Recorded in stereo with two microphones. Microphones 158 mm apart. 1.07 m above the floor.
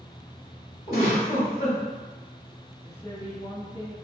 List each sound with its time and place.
0.9 s a giggle: 65° left (ahead or behind), 1.6 m
2.8 s a woman speaking: 35° left (ahead or behind), 1.2 m